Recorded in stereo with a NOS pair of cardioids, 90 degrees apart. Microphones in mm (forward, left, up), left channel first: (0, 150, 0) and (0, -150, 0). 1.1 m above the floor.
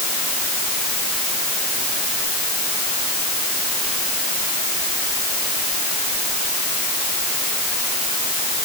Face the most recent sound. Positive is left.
No sound to turn to.